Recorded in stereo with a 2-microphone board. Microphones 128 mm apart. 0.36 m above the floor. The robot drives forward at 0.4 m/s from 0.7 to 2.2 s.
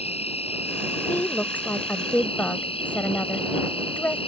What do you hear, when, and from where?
0.0 s an insect: 55° left (ahead or behind); by 4.3 s 50° left (ahead or behind)
1.1 s a woman speaking: 15° left (ahead or behind); by 4.2 s 10° left (ahead or behind)